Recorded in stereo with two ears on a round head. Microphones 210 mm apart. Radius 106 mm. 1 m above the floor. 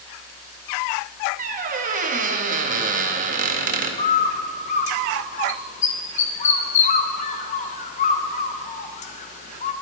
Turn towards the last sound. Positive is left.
turn(degrees=30)  # may be behind; listen again after turning